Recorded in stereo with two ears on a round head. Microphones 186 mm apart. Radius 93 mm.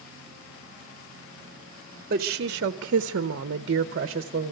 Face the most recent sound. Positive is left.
turn(degrees=-35)  # may be behind; listen again after turning